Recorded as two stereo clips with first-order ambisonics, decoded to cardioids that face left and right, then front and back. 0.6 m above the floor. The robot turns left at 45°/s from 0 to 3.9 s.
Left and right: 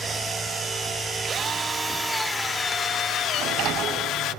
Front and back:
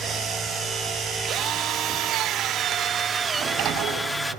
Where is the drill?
150° right, 0.8 m; by 4.3 s 90° left, 0.8 m.